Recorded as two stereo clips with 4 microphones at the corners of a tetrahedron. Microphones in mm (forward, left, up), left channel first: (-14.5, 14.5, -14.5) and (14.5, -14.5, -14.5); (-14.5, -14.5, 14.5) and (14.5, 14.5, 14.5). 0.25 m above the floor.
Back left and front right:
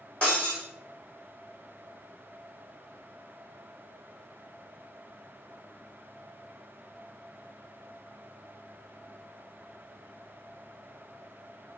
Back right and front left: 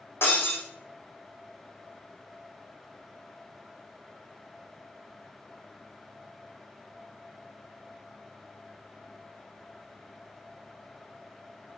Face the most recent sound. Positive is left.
turn(degrees=-165)